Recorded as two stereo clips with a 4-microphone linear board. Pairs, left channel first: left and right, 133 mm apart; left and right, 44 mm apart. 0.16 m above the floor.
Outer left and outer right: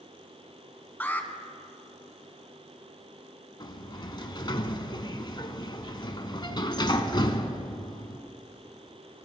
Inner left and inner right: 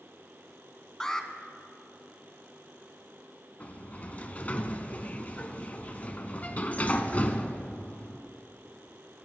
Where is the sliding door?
35° left (ahead or behind), 1.0 m.